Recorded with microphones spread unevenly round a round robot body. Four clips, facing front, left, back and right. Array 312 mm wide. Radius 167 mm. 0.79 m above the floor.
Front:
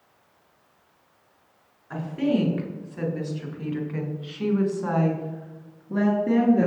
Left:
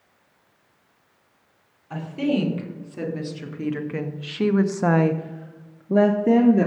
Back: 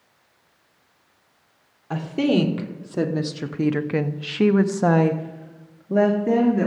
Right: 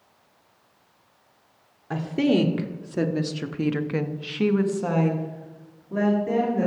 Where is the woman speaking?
130° right, 2 m; by 6.7 s 95° left, 1.7 m.